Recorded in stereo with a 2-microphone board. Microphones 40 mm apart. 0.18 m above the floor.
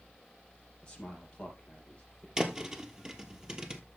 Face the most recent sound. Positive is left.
turn(degrees=-20)  # may be behind; listen again after turning